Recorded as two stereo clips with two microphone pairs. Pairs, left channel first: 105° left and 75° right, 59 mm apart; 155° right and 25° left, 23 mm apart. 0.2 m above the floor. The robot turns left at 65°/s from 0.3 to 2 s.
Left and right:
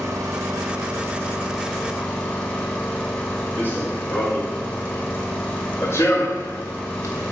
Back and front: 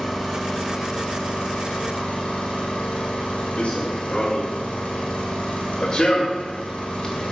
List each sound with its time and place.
0.0 s an engine running: 75° right, 4 m; by 7.3 s 175° left, 4 m
3.6 s running footsteps: 165° left, 3.5 m; by 7.3 s 130° left, 1.7 m